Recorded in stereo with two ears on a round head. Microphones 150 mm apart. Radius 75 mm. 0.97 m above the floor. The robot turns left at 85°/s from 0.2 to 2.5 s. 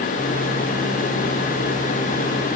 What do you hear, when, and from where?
Only background noise.